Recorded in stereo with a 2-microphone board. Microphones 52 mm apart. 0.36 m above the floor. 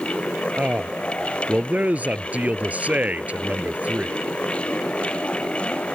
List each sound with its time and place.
0.6 s a man speaking: 25° right (ahead or behind)